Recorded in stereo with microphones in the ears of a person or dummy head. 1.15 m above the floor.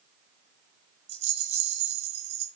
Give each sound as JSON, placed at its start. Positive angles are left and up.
{"t": 1.1, "sound": "a rattle", "side_deg": -40, "distance_m": 0.9}